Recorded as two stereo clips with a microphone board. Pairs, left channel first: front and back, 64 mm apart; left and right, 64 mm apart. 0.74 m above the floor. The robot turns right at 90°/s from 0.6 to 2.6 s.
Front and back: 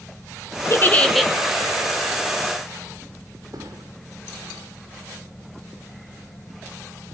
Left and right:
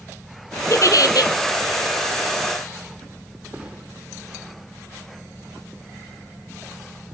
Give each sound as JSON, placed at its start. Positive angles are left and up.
{"t": 0.7, "sound": "a giggle", "azimuth_deg": 45, "distance_m": 1.6}
{"t": 3.5, "sound": "a thud", "azimuth_deg": -165, "distance_m": 7.0}